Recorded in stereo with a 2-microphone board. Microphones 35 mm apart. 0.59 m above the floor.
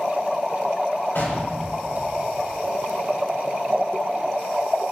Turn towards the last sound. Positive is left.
turn(degrees=90)